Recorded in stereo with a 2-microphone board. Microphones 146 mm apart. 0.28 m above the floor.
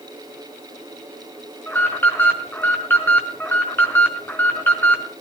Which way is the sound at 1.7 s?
15° left (ahead or behind).